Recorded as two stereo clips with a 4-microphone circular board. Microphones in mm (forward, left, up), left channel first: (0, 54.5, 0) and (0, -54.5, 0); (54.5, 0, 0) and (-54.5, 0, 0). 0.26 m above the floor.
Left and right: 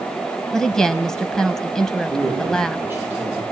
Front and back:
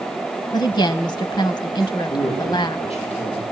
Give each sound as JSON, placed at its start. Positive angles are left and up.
{"t": 0.5, "sound": "a woman speaking", "azimuth_deg": 10, "distance_m": 1.2}
{"t": 2.1, "sound": "a man speaking", "azimuth_deg": -20, "distance_m": 9.0}